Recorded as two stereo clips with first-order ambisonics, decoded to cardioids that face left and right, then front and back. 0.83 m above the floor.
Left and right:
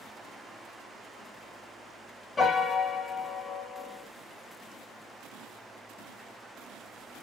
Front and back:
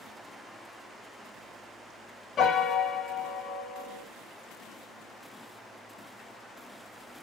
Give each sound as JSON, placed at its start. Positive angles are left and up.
{"t": 2.4, "sound": "a piano", "azimuth_deg": 30, "distance_m": 0.7}